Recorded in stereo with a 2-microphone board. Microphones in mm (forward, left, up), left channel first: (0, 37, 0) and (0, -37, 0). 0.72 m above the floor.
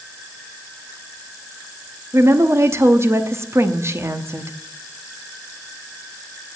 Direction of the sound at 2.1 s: 35° right (ahead or behind).